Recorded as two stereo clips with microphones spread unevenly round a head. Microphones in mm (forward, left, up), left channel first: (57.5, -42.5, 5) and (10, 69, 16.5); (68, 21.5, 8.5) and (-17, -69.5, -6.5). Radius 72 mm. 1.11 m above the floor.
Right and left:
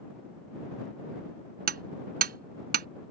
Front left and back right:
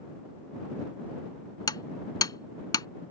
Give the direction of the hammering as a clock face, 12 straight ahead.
8 o'clock.